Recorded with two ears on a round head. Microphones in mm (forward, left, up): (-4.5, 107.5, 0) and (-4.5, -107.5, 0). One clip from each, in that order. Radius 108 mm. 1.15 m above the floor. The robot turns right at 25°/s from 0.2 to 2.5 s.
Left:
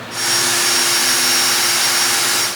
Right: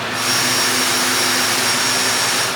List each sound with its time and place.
Only background noise.